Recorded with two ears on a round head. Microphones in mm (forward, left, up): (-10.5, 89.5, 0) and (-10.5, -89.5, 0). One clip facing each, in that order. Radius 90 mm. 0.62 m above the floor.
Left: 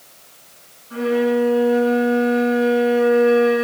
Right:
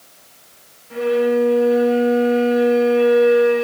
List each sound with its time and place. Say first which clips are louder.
0.9 s a violin: right 1 dB; 70° right (ahead or behind), 3 m